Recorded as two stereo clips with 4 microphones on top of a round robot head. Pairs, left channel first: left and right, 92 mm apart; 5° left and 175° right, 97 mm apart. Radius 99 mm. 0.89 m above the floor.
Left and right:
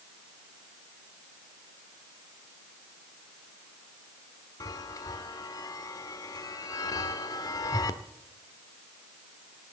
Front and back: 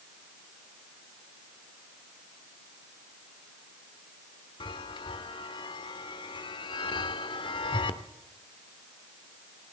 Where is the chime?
40° left, 0.8 m.